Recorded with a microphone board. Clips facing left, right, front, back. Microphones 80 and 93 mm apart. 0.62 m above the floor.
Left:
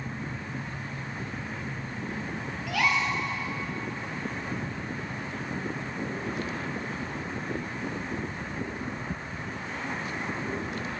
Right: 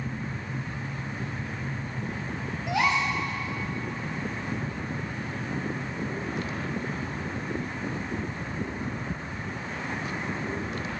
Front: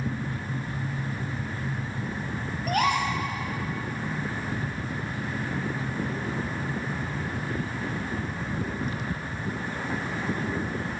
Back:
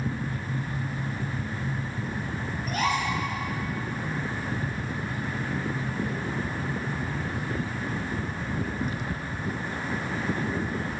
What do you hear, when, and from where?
2.7 s a gasp: 25° right, 1.9 m